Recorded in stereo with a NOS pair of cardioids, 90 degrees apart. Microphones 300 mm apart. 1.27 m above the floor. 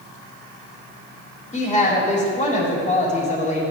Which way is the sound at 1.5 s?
25° left.